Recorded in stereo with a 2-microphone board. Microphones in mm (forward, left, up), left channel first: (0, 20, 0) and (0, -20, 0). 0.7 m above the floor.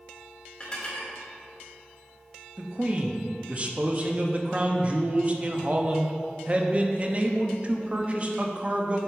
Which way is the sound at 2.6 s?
30° right (ahead or behind).